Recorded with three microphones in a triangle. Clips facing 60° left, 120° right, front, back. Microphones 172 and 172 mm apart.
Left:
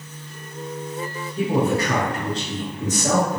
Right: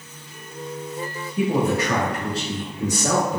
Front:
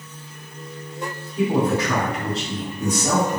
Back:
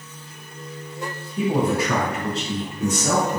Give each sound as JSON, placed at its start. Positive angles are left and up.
{"t": 1.4, "sound": "a man speaking", "azimuth_deg": 150, "distance_m": 1.2}